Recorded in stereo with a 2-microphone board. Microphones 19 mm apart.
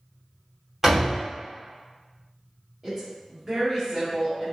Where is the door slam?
20° right (ahead or behind), 2.0 m.